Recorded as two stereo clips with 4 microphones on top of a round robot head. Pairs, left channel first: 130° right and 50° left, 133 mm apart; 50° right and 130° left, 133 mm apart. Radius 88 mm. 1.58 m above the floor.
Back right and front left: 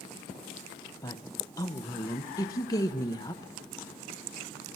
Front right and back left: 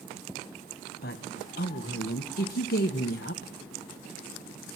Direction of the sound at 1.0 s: 65° right.